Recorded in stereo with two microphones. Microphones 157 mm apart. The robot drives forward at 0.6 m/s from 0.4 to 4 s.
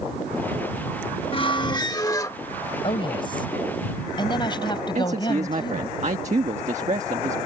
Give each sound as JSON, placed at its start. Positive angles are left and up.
{"t": 1.3, "sound": "a squeak", "side_deg": 35}
{"t": 2.8, "sound": "a woman speaking", "side_deg": 35}
{"t": 5.0, "sound": "a man speaking", "side_deg": -50}